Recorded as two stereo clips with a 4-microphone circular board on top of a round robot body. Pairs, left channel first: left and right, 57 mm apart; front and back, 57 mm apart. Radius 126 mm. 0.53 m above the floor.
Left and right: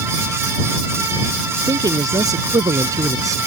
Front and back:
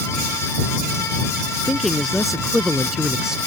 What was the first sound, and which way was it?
A man speaking, 90° right.